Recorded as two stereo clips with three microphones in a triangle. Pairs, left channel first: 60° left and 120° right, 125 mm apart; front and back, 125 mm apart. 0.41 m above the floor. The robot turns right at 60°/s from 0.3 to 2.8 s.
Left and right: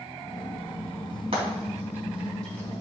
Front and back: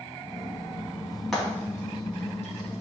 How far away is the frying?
About 3.5 m.